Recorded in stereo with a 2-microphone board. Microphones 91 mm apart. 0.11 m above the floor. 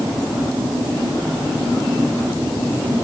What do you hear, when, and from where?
Only background noise.